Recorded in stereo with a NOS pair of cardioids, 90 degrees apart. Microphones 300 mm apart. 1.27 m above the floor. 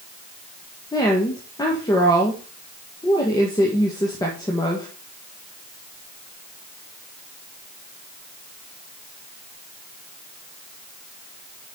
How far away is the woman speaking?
About 1.4 m.